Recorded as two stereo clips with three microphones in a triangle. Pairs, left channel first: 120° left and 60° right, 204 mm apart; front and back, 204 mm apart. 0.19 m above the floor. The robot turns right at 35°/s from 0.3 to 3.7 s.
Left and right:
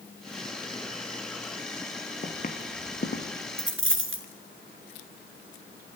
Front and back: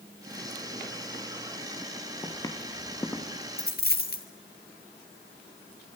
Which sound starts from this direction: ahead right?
A dropped coin, at 3.6 s.